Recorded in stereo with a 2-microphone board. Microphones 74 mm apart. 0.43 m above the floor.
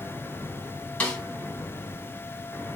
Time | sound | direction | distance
1.0 | a snare drum | 15° left (ahead or behind) | 2 m